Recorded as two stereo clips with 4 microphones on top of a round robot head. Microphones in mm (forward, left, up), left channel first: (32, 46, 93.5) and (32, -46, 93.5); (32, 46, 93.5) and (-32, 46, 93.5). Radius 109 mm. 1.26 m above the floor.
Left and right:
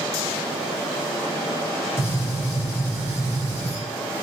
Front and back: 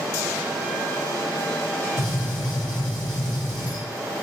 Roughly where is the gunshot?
Ahead left.